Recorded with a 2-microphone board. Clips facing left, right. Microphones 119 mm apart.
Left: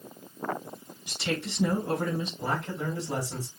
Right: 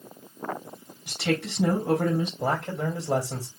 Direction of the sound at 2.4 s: 80° right.